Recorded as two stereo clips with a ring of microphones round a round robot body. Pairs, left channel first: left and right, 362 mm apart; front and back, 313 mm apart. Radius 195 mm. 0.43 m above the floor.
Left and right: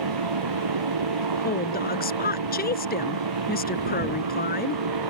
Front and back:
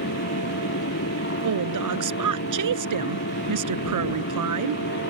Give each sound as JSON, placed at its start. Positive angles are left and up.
{"t": 0.0, "sound": "a motorcycle", "azimuth_deg": -60}
{"t": 1.4, "sound": "a woman speaking", "azimuth_deg": 155}